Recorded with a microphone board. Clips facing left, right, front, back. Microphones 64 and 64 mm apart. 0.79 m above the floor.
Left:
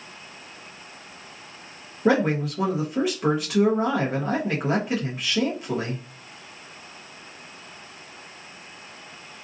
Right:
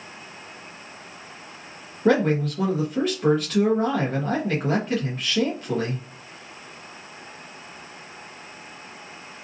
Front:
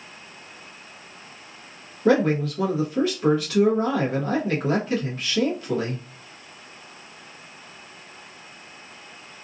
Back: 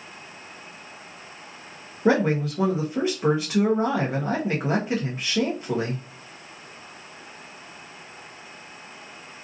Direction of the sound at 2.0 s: 155° left.